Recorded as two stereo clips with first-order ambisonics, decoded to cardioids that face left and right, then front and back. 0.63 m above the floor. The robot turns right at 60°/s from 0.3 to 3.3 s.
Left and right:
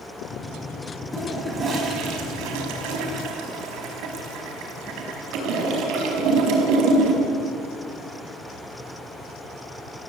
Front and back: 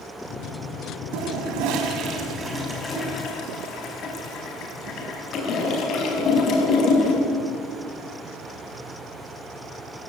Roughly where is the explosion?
No explosion in this recording.